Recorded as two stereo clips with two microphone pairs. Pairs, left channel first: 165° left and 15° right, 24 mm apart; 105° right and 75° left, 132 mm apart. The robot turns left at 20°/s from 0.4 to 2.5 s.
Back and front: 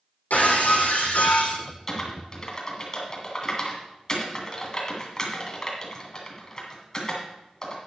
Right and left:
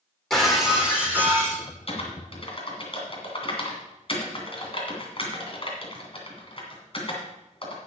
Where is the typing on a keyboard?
120° right, 2.5 m; by 7.8 s 135° right, 2.5 m.